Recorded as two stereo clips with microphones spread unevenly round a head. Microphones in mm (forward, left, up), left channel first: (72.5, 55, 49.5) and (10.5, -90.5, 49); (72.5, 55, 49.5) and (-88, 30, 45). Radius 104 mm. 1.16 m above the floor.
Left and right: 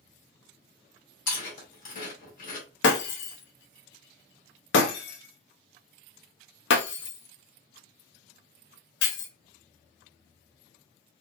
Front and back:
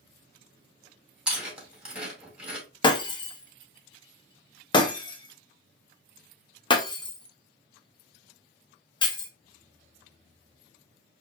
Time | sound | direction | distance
1.3 | chewing | 105° left | 2.5 m
2.8 | breaking glass | 70° left | 0.8 m